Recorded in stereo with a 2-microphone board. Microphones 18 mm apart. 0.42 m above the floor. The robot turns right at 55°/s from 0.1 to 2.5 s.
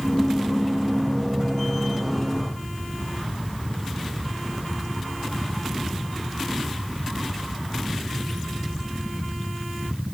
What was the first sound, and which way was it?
Only background noise.